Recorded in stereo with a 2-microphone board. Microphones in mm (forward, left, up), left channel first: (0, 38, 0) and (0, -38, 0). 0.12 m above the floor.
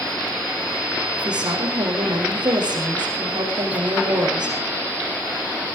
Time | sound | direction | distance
1.2 | a woman speaking | 70° right (ahead or behind) | 5.5 m